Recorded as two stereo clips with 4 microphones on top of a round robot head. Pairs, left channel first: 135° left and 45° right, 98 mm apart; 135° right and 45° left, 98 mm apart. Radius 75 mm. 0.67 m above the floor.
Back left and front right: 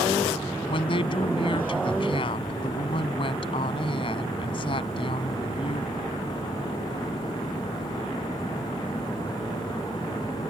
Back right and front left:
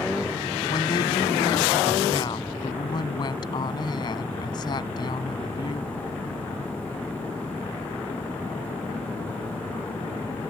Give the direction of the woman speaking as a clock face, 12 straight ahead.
6 o'clock.